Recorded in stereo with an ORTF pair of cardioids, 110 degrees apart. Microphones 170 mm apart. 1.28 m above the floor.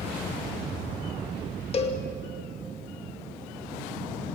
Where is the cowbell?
35° left, 2.5 m.